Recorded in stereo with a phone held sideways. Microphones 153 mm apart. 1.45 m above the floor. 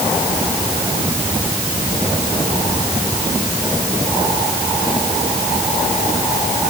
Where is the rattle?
No rattle in this recording.